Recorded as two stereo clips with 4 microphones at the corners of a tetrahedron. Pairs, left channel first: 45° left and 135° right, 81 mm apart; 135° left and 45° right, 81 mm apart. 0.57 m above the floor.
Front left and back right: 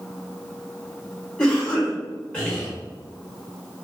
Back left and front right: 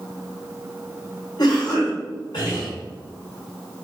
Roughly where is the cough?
Behind left.